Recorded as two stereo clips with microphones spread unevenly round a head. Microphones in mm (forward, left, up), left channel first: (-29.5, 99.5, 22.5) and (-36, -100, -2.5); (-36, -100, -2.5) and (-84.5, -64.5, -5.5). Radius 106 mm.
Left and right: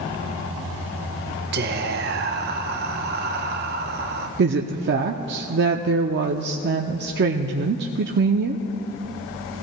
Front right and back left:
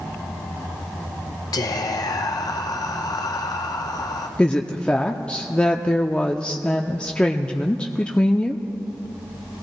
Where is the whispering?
45° right, 0.9 m.